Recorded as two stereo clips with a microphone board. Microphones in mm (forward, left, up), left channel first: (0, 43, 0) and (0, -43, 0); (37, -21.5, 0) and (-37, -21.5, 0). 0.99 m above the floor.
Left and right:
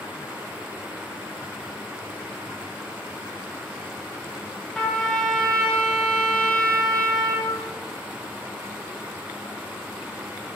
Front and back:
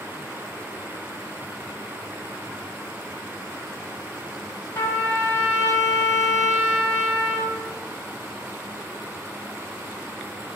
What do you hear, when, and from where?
4.7 s a trumpet: 15° left, 0.9 m